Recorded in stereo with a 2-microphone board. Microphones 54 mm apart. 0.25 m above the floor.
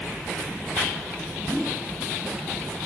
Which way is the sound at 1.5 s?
10° right (ahead or behind).